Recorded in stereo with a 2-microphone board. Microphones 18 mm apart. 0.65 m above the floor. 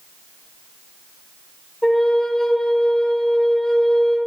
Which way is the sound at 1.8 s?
30° left (ahead or behind).